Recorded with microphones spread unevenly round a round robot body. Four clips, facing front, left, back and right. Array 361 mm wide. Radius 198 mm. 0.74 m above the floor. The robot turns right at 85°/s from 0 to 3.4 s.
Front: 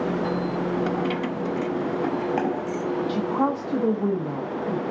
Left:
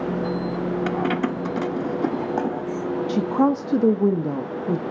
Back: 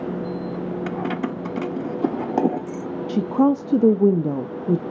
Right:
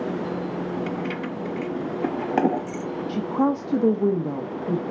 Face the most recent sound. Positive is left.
turn(degrees=165)